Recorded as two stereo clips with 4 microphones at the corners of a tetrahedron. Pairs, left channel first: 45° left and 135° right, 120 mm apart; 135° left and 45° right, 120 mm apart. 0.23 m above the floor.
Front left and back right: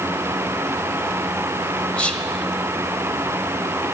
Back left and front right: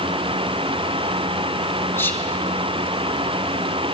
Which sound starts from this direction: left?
Whispering, at 2.0 s.